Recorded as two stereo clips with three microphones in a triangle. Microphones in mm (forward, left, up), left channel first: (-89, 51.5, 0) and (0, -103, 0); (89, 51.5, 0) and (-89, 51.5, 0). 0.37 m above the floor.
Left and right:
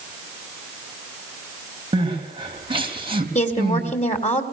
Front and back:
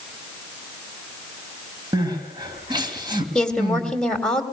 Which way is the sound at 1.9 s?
115° right.